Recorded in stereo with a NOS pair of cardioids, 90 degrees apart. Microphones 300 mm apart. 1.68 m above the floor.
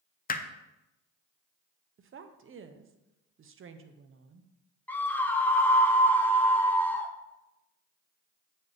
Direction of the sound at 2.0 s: 45° right.